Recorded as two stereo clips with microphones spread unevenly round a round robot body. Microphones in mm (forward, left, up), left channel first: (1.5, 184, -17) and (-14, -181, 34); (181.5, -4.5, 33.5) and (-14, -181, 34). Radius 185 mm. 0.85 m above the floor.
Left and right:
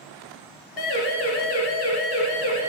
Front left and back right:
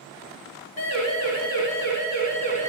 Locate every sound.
0.8 s a siren: 75° left, 3.5 m; by 2.7 s 115° left, 4 m